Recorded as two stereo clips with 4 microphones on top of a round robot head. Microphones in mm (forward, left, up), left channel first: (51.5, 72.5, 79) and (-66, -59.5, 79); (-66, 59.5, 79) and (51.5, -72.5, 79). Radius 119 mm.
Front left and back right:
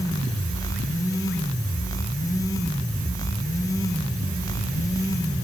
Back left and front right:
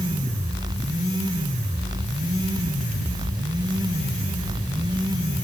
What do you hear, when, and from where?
Only background noise.